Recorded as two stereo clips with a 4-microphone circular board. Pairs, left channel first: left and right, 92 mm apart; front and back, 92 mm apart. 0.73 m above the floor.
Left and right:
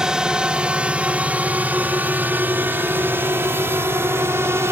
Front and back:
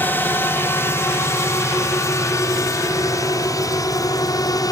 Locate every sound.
0.0 s a drone: 20° right; by 4.7 s 35° right